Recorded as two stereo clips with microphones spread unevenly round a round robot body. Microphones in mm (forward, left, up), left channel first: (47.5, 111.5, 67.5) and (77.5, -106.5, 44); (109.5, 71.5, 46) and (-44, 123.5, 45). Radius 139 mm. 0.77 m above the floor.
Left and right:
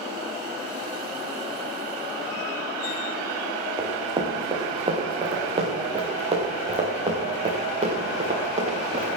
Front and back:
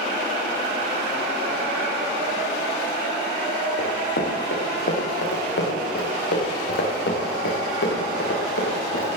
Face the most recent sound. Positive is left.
turn(degrees=-20)